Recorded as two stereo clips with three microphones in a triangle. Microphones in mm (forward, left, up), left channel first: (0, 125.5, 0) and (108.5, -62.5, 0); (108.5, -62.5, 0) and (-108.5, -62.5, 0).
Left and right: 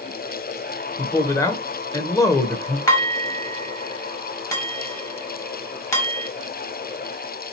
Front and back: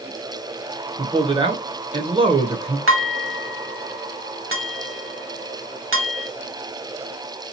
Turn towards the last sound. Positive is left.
turn(degrees=-165)